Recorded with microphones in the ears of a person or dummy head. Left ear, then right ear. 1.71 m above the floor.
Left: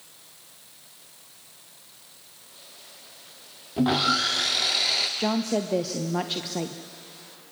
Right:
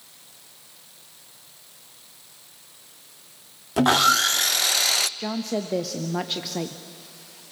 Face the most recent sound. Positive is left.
turn(degrees=0)  # may be behind; listen again after turning